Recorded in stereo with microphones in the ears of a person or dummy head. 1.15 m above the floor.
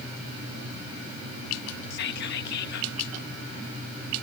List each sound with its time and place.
1.9 s whispering: 60° left (ahead or behind), 1.3 m